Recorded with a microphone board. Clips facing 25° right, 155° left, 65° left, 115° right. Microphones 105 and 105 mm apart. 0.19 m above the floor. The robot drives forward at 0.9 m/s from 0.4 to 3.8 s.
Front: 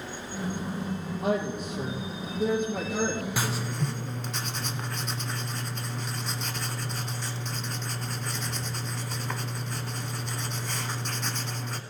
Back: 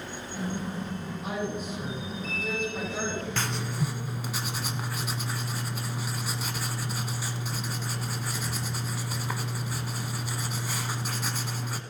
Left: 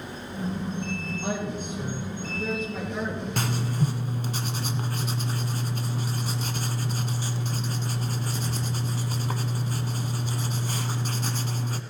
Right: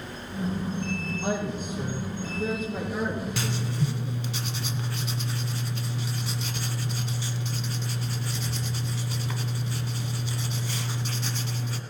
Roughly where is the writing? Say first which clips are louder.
Front 1 dB, left 2 dB; ahead left.